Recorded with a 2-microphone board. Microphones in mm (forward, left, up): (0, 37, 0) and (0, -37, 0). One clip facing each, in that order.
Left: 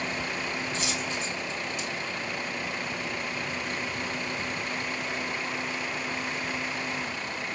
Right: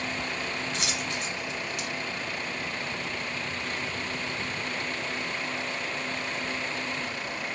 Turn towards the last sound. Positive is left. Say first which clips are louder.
# left 1 dB
turn(degrees=-70)  # may be behind; listen again after turning